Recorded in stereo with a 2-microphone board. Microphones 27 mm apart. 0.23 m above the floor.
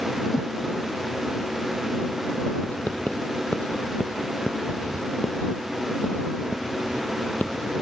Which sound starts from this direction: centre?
A whoosh, at 0.3 s.